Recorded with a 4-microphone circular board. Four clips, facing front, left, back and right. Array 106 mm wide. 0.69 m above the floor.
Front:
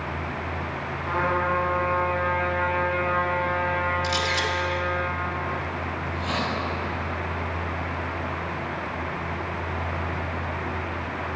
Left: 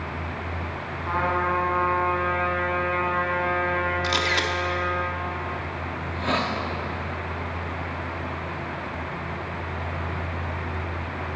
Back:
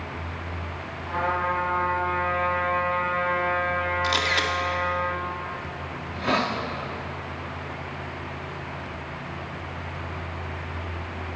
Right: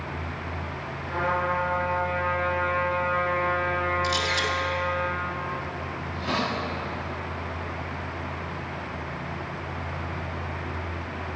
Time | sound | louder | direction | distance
1.1 | a trumpet | left 2 dB, front 1 dB | 70° left | 3.5 m
4.0 | a camera shutter | left 1 dB, back 1 dB | 135° left | 1.5 m
6.0 | a hiss | left 3 dB, back 6 dB | 150° left | 1.5 m